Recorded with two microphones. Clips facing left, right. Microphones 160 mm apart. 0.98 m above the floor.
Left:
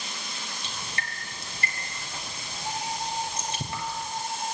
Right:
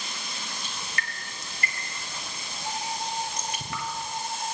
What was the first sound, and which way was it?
Dripping, 30° left (ahead or behind).